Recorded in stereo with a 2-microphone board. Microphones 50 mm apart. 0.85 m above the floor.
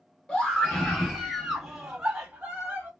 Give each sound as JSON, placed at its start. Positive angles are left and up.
{"t": 0.3, "sound": "a scream", "side_deg": 15, "distance_m": 1.1}